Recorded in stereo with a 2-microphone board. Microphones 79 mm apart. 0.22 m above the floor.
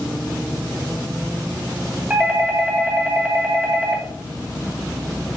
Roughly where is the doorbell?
Centre.